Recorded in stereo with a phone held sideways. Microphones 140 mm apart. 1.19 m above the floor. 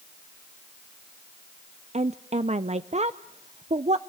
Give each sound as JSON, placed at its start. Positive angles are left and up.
{"t": 1.9, "sound": "a woman speaking", "side_deg": -50, "distance_m": 0.5}